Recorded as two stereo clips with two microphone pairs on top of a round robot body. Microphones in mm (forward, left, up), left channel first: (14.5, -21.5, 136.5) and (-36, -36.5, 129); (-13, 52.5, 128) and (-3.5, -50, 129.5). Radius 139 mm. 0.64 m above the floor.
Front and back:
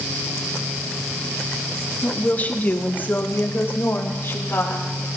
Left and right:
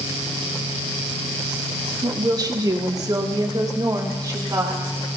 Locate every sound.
2.0 s a woman speaking: 45° right, 1.6 m; by 4.8 s 30° right, 3.5 m